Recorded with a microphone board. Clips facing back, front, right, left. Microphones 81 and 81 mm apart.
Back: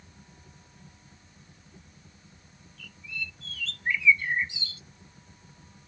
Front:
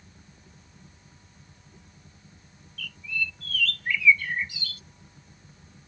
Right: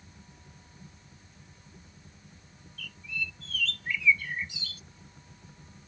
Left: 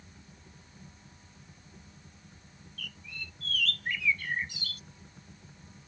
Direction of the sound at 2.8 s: 120° left.